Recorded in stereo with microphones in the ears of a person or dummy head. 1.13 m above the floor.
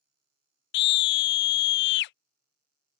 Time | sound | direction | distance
0.7 | a scream | 60° left (ahead or behind) | ?